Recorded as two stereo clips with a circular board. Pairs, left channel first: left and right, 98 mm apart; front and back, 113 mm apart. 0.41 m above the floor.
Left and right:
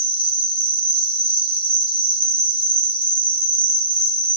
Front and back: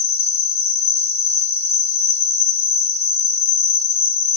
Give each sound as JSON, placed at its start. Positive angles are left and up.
{"t": 0.0, "sound": "an insect", "azimuth_deg": -65, "distance_m": 0.8}